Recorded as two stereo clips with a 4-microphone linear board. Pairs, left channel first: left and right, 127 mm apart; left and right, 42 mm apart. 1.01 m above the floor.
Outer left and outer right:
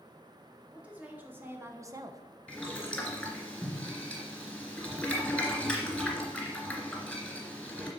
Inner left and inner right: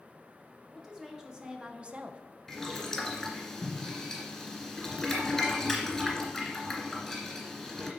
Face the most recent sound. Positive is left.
turn(degrees=5)  # may be behind; listen again after turning